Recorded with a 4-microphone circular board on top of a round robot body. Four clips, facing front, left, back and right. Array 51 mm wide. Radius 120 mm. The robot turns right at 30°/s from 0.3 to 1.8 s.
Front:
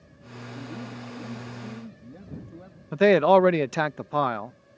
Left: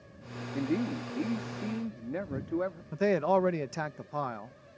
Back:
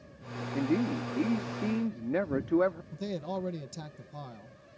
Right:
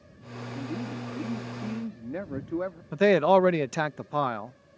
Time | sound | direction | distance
0.5 | a man speaking | 145° left | ?
2.9 | a man speaking | 25° right | ?